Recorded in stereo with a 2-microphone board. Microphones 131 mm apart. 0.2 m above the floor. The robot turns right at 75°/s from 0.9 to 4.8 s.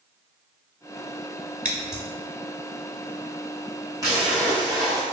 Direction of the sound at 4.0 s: 30° right.